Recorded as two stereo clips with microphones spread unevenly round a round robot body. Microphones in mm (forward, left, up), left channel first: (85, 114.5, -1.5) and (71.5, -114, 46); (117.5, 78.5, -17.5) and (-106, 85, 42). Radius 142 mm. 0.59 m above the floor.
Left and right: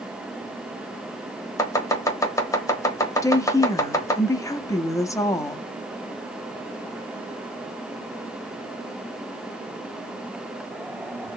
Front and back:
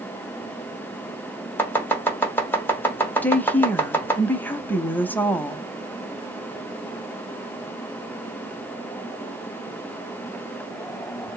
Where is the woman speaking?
45° left, 0.6 m.